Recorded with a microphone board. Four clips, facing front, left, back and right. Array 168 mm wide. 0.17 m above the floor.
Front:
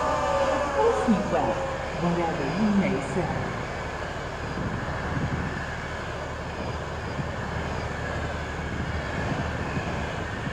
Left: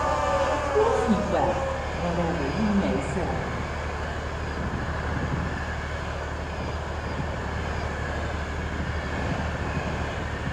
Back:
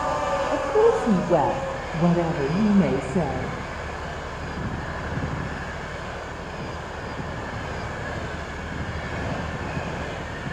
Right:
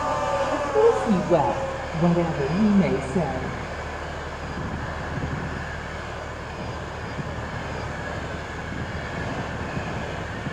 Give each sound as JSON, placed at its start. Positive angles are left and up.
{"t": 0.5, "sound": "a woman speaking", "azimuth_deg": -155, "distance_m": 6.0}